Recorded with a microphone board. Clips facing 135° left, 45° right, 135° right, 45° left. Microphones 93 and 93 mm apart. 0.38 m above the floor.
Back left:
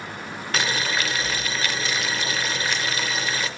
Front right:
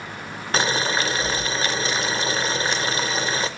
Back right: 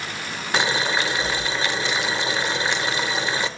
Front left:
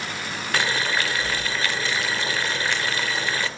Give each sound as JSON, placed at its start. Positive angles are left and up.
{"t": 0.5, "sound": "boiling", "azimuth_deg": -80, "distance_m": 0.7}